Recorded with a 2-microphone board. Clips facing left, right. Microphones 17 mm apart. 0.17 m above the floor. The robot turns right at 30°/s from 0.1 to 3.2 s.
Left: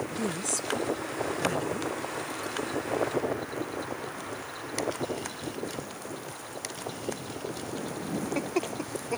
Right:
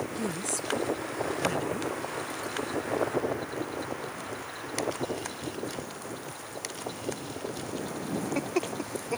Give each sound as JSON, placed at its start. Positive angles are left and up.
{"t": 0.2, "sound": "a woman speaking", "side_deg": 35}